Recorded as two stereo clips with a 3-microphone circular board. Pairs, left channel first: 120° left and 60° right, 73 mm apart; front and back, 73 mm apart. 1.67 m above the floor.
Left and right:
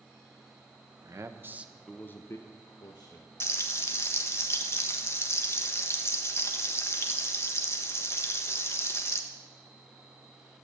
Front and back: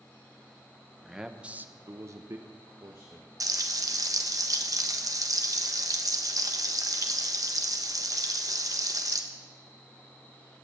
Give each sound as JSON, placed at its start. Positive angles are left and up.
{"t": 1.0, "sound": "a man speaking", "azimuth_deg": -95, "distance_m": 1.3}
{"t": 3.4, "sound": "frying", "azimuth_deg": 160, "distance_m": 1.2}